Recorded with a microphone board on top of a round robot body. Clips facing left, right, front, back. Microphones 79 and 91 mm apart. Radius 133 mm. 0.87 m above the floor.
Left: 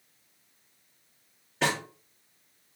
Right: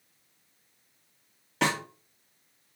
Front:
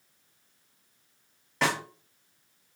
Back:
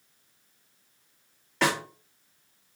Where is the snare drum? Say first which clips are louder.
Right 1 dB, back 2 dB; 90° right, 1.5 m.